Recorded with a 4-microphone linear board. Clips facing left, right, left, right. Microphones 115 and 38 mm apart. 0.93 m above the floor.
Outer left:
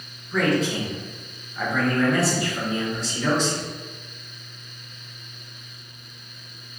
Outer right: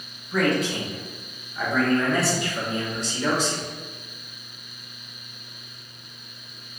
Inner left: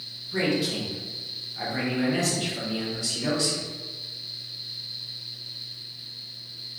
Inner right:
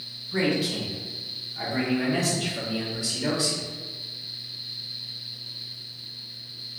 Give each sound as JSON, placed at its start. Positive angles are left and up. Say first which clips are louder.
{"t": 0.3, "sound": "a man speaking", "louder": "outer left 1 dB, inner right 1 dB", "side_deg": 0, "distance_m": 1.4}